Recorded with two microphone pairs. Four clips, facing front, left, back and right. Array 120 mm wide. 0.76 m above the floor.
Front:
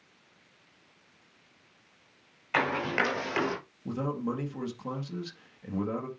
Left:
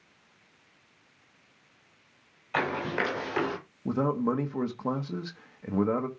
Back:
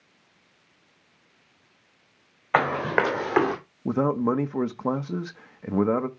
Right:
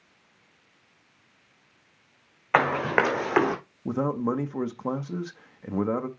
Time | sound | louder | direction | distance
2.5 | running footsteps | right 7 dB, back 6 dB | 135° right | 3 m
3.9 | a man speaking | right 1 dB, back 9 dB | 170° right | 0.8 m